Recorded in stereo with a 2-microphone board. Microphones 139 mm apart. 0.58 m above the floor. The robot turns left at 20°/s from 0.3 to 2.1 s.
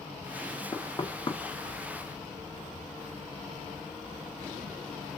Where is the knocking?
30° left (ahead or behind), 1.0 m; by 1.4 s 35° left (ahead or behind), 1.0 m.